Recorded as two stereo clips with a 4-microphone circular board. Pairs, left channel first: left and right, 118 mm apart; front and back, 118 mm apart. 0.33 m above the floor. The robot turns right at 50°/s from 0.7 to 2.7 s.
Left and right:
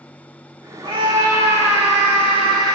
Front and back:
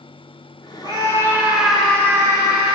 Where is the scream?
135° right, 2.5 m; by 2.8 s 40° right, 2.5 m.